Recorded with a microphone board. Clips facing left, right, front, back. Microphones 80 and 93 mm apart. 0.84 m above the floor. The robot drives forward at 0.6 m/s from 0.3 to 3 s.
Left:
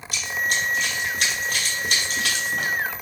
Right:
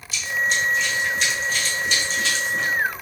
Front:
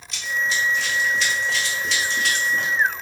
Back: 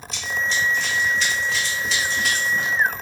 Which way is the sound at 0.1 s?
95° left.